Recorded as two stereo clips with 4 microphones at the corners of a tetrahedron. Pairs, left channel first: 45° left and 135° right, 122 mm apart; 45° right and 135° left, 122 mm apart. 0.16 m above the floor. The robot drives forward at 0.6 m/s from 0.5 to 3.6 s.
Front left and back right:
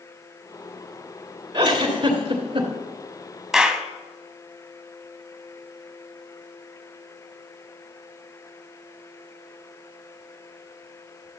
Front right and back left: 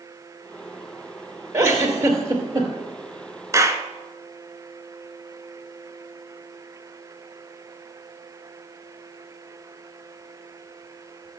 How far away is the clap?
About 0.8 m.